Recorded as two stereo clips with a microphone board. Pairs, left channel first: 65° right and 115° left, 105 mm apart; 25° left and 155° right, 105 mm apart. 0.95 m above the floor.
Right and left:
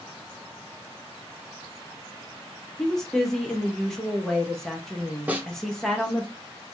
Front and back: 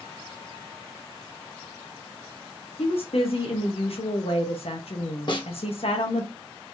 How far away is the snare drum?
About 0.7 m.